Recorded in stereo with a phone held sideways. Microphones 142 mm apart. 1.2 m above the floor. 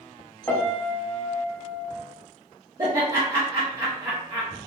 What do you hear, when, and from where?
0.5 s a piano: 15° left (ahead or behind), 0.7 m
2.8 s laughter: 30° right (ahead or behind), 0.6 m